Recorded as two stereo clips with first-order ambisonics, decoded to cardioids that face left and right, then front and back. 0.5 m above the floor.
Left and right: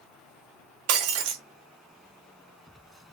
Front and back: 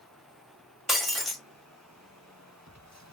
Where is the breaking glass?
90° right, 1.1 m.